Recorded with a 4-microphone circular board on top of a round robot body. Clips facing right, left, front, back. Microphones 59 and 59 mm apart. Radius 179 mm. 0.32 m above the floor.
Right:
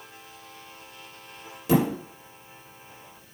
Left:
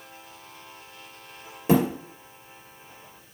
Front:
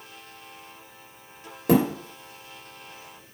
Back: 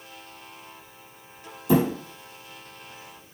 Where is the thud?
30° left, 3 m.